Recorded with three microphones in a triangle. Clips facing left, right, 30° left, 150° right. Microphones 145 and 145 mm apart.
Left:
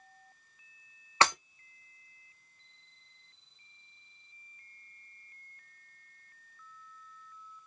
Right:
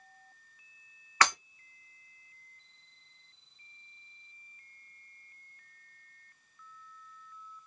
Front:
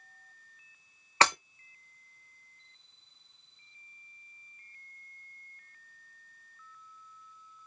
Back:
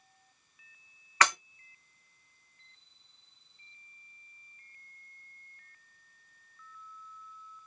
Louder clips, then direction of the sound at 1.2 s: Left 1 dB, front 2 dB; 55° left.